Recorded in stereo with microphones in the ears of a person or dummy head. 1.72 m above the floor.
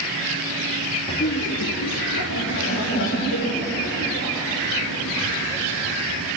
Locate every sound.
1.1 s laughter: 25° left (ahead or behind), 0.7 m; by 6.3 s 50° left (ahead or behind), 5.5 m